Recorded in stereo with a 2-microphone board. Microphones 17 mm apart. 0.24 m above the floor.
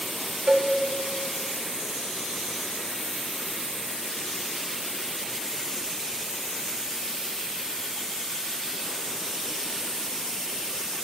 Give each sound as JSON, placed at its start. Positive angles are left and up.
{"t": 0.5, "sound": "a cowbell", "side_deg": -35, "distance_m": 0.7}